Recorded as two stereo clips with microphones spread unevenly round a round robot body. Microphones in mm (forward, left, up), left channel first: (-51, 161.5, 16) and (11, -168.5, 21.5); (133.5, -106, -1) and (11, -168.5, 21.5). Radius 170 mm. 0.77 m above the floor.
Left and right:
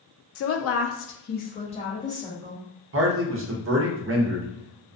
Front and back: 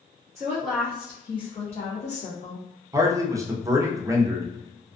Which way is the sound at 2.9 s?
85° right.